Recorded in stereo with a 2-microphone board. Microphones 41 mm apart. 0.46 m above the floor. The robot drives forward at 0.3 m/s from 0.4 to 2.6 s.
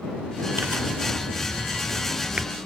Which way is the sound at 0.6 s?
55° right (ahead or behind).